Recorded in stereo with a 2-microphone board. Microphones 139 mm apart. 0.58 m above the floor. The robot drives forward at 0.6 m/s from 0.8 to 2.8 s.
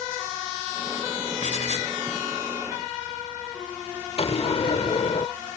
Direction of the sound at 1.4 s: 60° left (ahead or behind).